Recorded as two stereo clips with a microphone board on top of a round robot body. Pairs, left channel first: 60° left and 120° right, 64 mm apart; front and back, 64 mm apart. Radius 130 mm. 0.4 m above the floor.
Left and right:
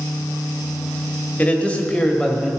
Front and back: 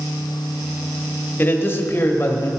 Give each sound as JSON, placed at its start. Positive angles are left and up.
{"t": 1.4, "sound": "a man speaking", "azimuth_deg": 15, "distance_m": 1.4}